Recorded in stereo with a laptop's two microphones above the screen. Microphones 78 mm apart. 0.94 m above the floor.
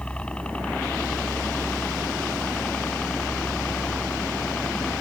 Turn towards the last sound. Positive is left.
turn(degrees=15)  # may be behind; listen again after turning